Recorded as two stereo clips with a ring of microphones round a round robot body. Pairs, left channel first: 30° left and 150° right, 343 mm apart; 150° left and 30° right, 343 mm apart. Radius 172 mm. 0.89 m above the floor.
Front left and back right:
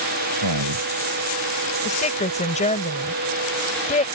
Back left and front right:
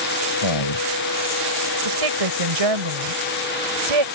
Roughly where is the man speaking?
Behind.